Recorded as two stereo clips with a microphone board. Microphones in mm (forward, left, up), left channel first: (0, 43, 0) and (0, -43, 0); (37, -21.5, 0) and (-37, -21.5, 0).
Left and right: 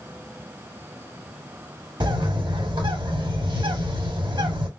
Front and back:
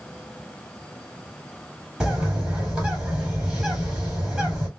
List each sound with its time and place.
2.0 s a bird: 100° right, 2.5 m